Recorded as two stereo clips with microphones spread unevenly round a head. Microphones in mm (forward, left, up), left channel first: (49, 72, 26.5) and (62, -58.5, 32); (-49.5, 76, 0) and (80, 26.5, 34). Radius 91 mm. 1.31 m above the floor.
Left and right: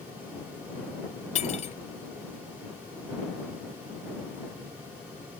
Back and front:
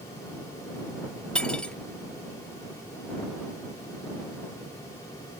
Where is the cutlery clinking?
70° left.